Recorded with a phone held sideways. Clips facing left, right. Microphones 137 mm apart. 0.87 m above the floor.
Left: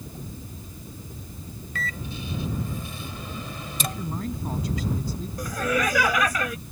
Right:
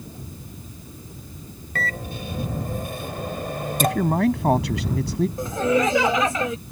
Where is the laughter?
25° right (ahead or behind).